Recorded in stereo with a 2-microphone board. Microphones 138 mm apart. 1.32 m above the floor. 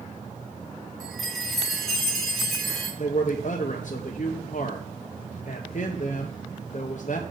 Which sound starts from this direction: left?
A man speaking, at 3.0 s.